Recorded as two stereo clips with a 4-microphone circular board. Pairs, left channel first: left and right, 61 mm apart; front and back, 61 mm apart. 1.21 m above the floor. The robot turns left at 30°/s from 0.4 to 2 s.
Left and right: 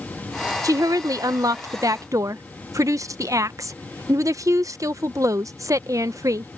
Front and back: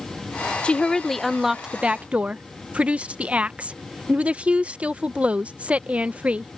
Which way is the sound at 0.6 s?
70° right.